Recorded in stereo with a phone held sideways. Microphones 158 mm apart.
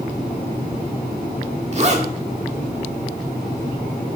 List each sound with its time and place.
1.7 s a zipper: 40° right (ahead or behind), 1.4 m